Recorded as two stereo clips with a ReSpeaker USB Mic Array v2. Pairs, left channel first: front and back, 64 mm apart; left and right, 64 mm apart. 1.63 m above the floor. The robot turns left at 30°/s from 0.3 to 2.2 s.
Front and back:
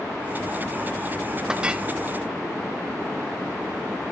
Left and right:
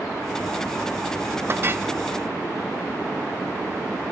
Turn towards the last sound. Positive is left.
turn(degrees=-130)